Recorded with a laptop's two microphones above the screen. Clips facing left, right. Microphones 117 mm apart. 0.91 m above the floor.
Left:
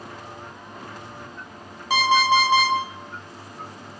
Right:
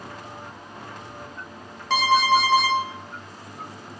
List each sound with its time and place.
1.9 s an alarm clock: 10° left (ahead or behind), 0.5 m